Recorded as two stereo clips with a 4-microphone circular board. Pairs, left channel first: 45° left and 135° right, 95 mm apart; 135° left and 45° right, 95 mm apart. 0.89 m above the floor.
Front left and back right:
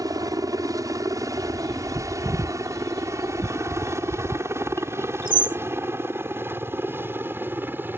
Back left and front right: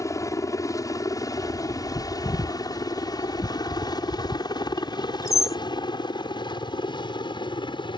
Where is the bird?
170° right.